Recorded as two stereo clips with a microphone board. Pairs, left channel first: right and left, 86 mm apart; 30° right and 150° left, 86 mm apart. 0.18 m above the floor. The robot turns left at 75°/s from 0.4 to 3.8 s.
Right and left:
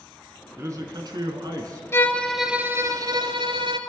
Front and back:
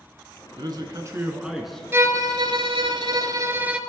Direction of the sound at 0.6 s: 140° left.